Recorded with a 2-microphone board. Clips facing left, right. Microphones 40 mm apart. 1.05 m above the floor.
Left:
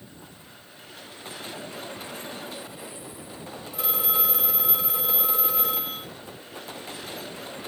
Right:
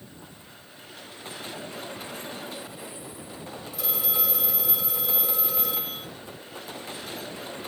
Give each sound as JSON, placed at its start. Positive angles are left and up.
{"t": 3.7, "sound": "a phone ringing", "side_deg": 35, "distance_m": 3.5}